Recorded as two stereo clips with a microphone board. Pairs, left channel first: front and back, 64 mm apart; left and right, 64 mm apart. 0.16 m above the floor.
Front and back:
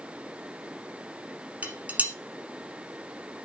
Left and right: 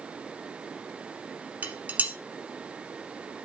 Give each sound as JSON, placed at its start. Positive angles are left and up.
{"t": 1.6, "sound": "dishes clattering", "azimuth_deg": -135, "distance_m": 1.1}